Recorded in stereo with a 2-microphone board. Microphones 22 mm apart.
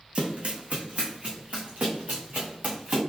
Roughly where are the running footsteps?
Right.